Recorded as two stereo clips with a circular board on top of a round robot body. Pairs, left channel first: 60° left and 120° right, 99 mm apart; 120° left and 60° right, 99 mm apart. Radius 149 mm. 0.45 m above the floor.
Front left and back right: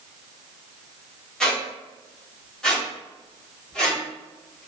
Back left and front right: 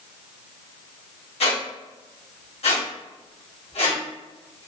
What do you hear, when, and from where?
1.4 s a squeak: 145° left, 1.3 m